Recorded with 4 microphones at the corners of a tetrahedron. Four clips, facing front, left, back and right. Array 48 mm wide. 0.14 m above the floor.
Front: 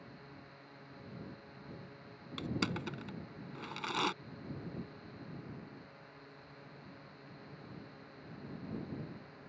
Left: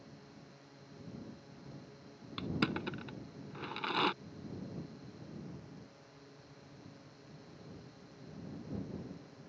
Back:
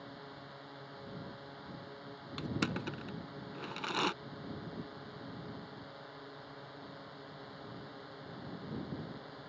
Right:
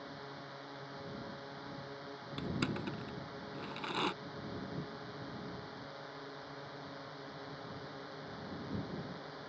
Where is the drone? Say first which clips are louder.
Right 8 dB, back 5 dB; 115° right.